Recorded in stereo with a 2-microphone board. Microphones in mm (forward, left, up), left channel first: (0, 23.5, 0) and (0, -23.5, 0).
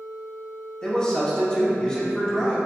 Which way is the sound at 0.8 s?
20° left (ahead or behind).